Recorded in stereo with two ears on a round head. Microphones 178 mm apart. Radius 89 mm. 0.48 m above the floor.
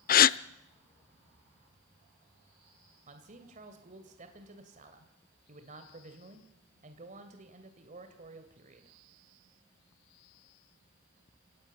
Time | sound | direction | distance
0.1 | a gasp | 45° left (ahead or behind) | 0.5 m
3.1 | a man speaking | 40° right (ahead or behind) | 2.5 m